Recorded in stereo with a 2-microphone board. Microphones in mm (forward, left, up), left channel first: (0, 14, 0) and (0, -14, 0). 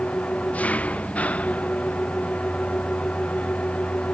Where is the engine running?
60° left (ahead or behind).